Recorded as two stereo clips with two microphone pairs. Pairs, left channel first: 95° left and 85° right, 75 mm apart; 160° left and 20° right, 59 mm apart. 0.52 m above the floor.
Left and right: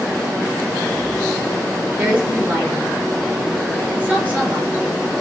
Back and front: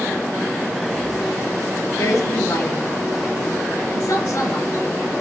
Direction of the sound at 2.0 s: 155° right.